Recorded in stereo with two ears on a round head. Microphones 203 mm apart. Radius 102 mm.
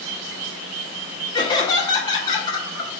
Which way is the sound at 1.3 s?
20° left (ahead or behind).